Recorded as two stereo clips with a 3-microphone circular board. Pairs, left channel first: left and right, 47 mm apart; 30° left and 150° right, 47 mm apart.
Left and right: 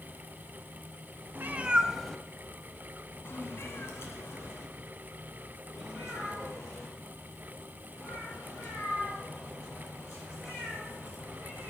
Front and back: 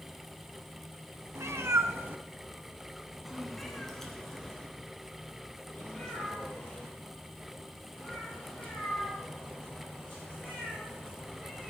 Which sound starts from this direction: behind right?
A cat meowing, at 1.4 s.